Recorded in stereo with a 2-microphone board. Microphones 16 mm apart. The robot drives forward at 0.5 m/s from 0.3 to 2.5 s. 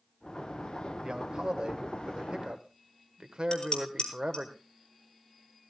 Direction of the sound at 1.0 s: 50° right (ahead or behind).